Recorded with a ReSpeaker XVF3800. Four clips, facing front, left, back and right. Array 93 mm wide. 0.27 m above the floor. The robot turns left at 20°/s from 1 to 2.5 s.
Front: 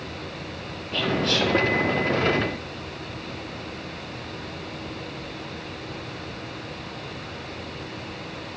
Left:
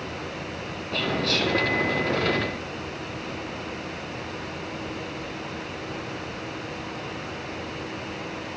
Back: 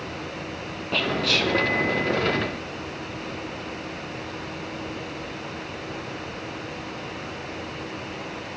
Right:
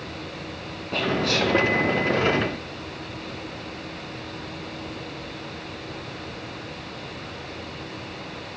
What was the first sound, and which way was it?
Whispering, 170° right.